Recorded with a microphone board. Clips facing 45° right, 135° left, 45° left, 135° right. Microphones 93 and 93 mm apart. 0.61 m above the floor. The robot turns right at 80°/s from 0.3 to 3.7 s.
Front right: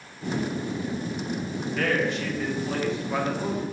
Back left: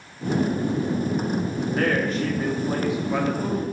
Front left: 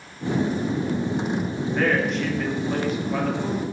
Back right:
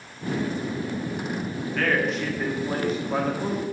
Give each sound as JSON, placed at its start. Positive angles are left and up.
{"t": 1.8, "sound": "a man speaking", "azimuth_deg": 110, "distance_m": 0.8}